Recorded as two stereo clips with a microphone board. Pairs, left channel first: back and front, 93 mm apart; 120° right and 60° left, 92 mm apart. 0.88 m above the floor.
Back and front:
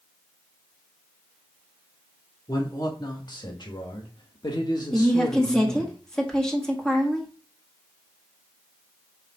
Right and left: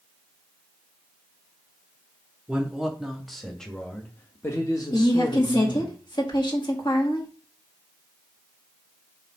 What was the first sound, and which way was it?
A man speaking, 140° left.